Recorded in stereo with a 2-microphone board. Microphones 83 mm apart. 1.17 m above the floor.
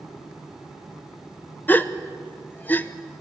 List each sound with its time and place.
1.7 s a gasp: 25° left (ahead or behind), 0.8 m